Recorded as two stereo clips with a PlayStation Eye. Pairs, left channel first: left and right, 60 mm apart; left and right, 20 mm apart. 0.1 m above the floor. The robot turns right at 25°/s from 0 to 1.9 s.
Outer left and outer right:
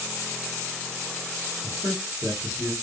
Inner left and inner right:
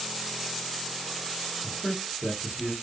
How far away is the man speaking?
About 1.6 m.